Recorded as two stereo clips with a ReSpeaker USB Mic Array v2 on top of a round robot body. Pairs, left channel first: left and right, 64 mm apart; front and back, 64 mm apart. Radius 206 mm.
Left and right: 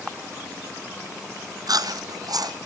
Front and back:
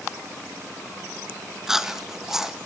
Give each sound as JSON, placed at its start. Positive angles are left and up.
{"t": 1.7, "sound": "chewing", "azimuth_deg": -95, "distance_m": 2.0}